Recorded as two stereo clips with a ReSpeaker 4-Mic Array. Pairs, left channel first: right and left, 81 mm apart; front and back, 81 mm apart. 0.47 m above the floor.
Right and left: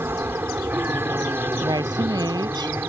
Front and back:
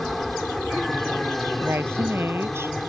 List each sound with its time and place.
0.0 s an aircraft: 85° left
1.6 s a woman speaking: 120° left